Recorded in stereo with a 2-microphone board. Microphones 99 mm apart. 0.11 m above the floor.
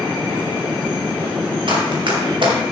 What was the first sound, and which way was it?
Running footsteps, 60° right (ahead or behind).